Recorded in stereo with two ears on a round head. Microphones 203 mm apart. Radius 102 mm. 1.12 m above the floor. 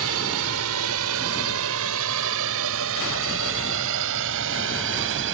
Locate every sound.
0.0 s a drone: 75° right (ahead or behind); by 5.3 s 60° right (ahead or behind)